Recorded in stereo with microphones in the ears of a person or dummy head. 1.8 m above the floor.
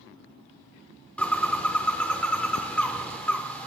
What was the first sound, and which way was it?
A bird, 5° left (ahead or behind).